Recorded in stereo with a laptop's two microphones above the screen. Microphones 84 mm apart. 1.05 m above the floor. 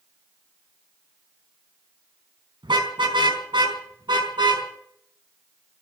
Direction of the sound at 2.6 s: 85° right.